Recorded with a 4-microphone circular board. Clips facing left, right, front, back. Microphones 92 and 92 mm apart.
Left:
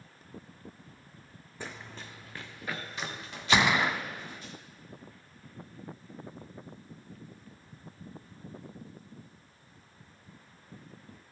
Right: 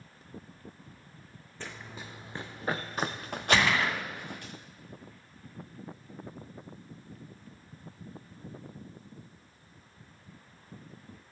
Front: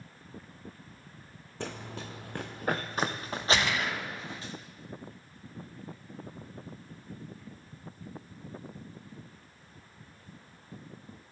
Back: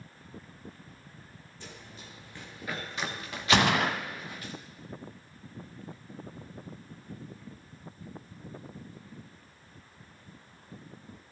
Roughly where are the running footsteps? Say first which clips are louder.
Even, front 10 dB; ahead.